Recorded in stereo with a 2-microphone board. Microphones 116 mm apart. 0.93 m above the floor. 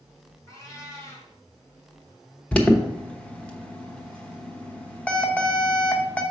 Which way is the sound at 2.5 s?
10° left (ahead or behind).